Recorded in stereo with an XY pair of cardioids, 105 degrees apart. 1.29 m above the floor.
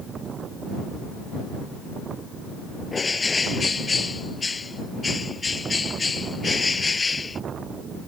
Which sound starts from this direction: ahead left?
A bird, at 2.9 s.